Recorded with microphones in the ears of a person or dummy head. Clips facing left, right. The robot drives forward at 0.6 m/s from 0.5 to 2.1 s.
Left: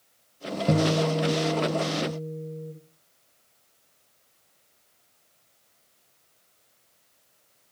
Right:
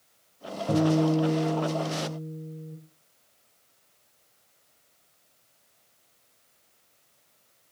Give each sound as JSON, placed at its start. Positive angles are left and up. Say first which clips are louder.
{"t": 0.7, "sound": "a guitar", "louder": "right 1 dB", "side_deg": 80, "distance_m": 2.0}